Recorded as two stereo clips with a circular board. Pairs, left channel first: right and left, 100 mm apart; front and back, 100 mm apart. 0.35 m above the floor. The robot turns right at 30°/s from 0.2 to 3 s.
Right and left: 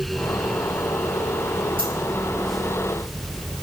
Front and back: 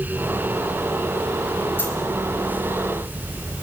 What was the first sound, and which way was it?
A dropped coin, 70° left.